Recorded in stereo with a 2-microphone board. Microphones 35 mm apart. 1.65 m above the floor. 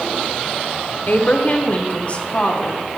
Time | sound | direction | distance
1.1 | a woman speaking | 50° left (ahead or behind) | 0.9 m